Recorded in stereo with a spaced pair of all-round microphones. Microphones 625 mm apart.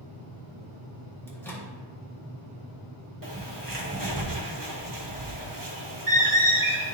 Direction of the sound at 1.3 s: 5° left (ahead or behind).